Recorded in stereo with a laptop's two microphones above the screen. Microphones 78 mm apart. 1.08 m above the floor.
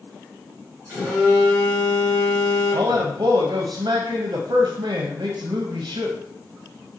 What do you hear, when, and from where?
0.9 s a phone buzzing: 20° right (ahead or behind), 2 m
2.7 s a man speaking: 80° right, 0.6 m